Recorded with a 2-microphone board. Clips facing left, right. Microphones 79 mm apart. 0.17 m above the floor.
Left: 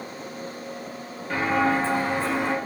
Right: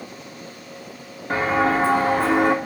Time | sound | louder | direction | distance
1.3 | footsteps | right 3 dB | 35° right (ahead or behind) | 1.2 m